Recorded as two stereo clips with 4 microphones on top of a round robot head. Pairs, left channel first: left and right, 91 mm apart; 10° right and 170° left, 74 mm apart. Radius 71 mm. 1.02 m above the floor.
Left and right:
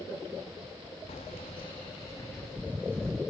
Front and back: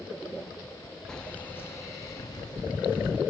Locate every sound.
1.1 s keys jangling: 70° left, 1.0 m; by 3.2 s 5° left, 1.6 m